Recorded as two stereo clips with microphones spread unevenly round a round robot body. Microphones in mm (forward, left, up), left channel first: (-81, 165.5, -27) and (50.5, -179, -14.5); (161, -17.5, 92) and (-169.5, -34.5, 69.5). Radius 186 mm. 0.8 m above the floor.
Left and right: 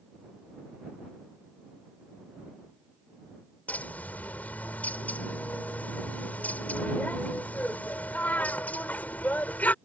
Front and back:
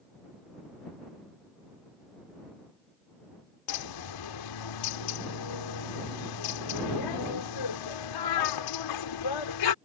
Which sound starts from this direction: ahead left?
A bird, at 3.7 s.